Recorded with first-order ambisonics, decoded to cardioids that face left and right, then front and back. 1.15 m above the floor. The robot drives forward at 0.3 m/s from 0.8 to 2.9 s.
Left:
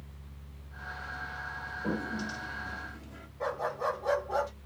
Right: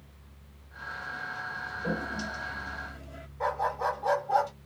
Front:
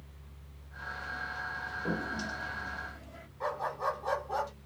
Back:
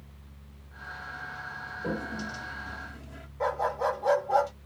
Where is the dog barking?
175° right, 2.5 m.